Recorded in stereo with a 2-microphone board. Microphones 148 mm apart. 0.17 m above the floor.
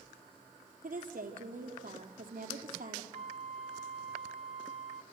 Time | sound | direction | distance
0.8 | a woman speaking | 65° right (ahead or behind) | 4.5 m
3.1 | a flute | 45° right (ahead or behind) | 1.0 m